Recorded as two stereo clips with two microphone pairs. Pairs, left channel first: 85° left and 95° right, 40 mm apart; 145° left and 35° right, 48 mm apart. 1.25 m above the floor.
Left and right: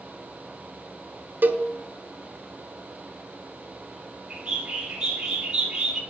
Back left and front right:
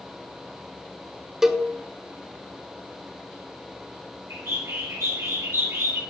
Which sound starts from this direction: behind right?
A cowbell, at 1.4 s.